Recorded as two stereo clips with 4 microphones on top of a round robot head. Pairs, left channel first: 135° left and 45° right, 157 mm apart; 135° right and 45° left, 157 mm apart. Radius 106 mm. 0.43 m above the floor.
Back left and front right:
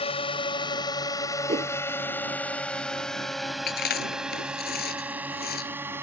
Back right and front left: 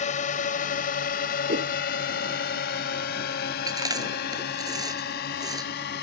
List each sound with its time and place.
0.0 s a drone: 175° right; by 6.0 s 120° right
1.5 s a whoosh: 5° left
3.7 s chewing: 110° left